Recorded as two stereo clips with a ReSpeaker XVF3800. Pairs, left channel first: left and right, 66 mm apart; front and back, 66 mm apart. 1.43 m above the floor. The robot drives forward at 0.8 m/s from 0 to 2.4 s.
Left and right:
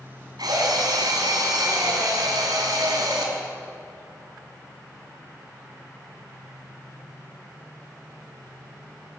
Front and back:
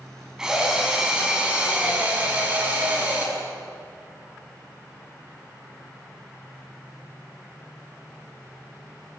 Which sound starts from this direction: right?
A drill, at 0.4 s.